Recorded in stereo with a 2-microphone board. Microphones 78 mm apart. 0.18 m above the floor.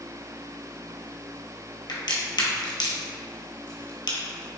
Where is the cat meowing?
I don't hear a cat meowing.